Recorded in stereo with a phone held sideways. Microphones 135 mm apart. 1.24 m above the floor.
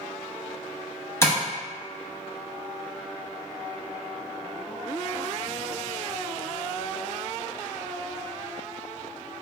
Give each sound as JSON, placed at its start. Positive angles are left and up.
{"t": 1.2, "sound": "tapping", "side_deg": 20, "distance_m": 0.7}